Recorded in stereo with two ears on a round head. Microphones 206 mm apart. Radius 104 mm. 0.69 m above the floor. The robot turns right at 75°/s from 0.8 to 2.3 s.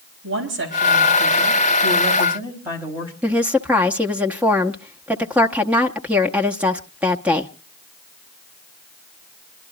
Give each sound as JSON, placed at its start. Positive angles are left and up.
{"t": 0.2, "sound": "a woman speaking", "azimuth_deg": -120, "distance_m": 5.0}
{"t": 3.2, "sound": "a woman speaking", "side_deg": -5, "distance_m": 0.8}